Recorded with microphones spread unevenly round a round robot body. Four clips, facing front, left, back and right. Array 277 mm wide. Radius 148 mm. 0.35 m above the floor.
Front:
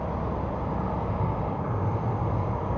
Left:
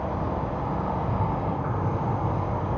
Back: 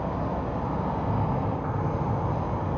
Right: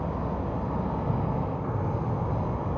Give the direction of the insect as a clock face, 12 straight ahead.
3 o'clock.